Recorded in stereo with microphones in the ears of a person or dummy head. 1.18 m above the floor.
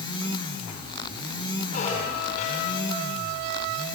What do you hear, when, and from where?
1.7 s a squeak: 40° left (ahead or behind), 10 m